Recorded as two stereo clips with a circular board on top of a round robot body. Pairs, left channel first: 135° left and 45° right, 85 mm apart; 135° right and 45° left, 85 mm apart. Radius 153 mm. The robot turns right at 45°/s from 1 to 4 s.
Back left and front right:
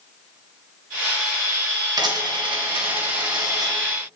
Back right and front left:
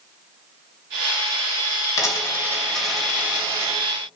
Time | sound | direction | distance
2.0 | a dropped coin | 85° right | 2.5 m